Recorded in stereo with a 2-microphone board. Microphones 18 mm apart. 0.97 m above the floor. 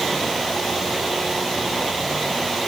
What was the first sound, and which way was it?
Only background noise.